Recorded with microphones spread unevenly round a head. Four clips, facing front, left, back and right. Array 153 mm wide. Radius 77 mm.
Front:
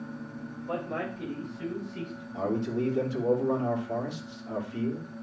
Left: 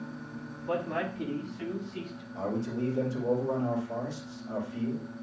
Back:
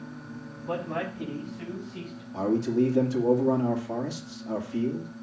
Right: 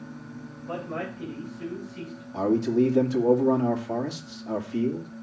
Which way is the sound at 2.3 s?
125° right.